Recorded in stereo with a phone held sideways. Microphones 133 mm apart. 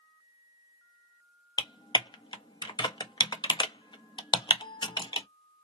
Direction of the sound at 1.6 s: 35° left (ahead or behind).